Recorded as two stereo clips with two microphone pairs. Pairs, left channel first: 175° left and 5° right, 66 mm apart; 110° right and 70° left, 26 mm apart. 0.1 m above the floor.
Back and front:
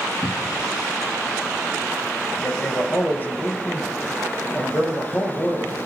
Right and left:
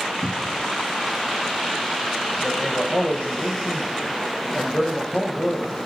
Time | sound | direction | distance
0.2 | a cupboard door | straight behind | 0.5 m
2.4 | a man speaking | 130° right | 4.5 m